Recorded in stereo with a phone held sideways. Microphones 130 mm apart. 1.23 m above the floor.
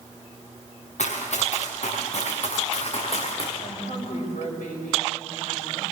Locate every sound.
1.0 s running footsteps: 65° left (ahead or behind), 7 m; by 3.5 s 45° left (ahead or behind), 5.5 m
3.6 s a woman speaking: 85° left, 7 m